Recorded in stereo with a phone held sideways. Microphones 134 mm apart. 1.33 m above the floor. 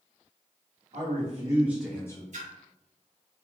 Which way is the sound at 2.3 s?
65° right (ahead or behind).